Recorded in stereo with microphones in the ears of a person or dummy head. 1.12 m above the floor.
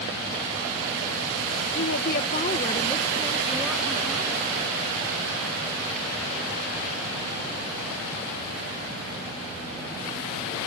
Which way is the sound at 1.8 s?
50° left (ahead or behind).